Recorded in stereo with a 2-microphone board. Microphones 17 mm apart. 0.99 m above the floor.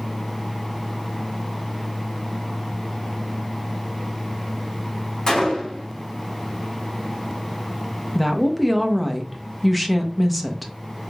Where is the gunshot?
45° left (ahead or behind), 1.1 m.